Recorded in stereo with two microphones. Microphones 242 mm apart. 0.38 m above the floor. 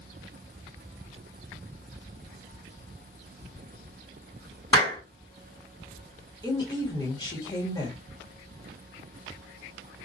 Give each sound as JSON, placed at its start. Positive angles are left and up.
{"t": 4.7, "sound": "a clap", "side_deg": 25, "distance_m": 3.0}
{"t": 6.4, "sound": "a woman speaking", "side_deg": 20, "distance_m": 1.3}